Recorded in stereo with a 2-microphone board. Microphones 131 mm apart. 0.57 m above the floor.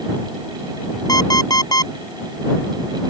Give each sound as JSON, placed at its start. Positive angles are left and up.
{"t": 1.1, "sound": "an alarm clock", "side_deg": 30}